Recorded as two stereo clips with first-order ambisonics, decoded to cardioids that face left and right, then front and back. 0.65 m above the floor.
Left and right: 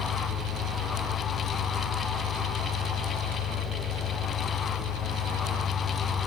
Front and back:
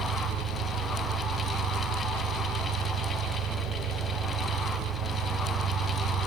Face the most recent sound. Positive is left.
turn(degrees=155)